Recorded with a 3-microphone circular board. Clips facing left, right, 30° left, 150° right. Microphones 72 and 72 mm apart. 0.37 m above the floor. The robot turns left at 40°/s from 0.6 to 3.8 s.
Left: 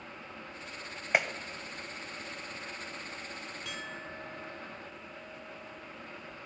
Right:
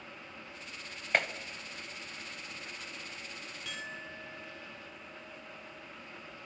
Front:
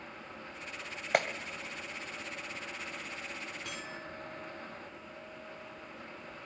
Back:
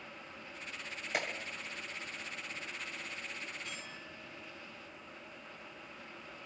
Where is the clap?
15° left, 1.2 m; by 1.3 s 10° left, 1.2 m.